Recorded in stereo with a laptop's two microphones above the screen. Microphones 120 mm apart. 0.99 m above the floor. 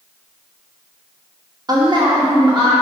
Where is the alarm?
I don't hear an alarm.